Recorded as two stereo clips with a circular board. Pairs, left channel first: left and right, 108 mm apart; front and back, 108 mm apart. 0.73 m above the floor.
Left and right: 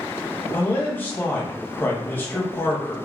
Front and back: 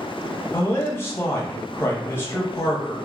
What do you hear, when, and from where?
0.5 s a man speaking: 40° left, 0.8 m